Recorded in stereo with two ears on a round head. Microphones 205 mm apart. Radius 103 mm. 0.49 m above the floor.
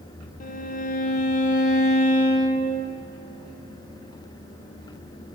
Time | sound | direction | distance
0.4 | a violin | 35° left (ahead or behind) | 0.7 m